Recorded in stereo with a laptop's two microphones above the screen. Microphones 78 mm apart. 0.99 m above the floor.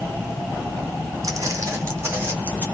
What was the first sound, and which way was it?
Footsteps, 45° right (ahead or behind).